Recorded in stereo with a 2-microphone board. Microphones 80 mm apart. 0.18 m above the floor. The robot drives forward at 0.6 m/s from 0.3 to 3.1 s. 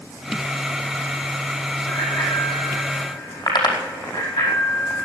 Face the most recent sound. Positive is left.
turn(degrees=65)  # may be behind; listen again after turning